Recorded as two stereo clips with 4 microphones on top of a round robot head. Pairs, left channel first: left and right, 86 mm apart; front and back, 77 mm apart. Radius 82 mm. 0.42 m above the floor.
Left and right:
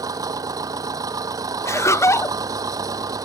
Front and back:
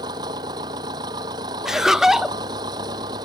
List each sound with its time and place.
0.0 s an engine running: 140° right
1.6 s laughter: 100° left